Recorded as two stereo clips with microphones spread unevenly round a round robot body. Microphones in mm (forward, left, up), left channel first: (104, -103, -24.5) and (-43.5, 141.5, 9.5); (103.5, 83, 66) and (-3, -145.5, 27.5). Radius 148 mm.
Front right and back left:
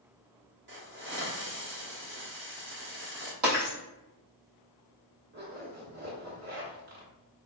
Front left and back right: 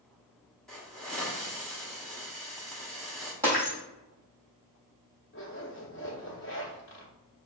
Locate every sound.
0.7 s a hiss: 165° left, 0.8 m
3.4 s breaking glass: 160° left, 1.8 m
5.3 s a zipper: 105° left, 1.3 m